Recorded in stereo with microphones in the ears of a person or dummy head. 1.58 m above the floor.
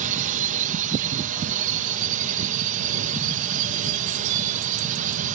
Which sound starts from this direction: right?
A drone, at 0.0 s.